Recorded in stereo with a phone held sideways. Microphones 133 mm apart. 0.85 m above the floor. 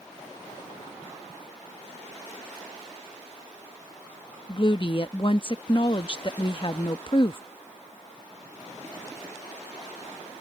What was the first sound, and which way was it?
A woman speaking, 40° left (ahead or behind).